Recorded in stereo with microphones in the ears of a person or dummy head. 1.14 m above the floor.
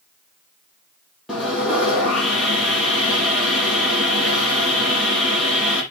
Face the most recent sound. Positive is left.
turn(degrees=-10)  # may be behind; listen again after turning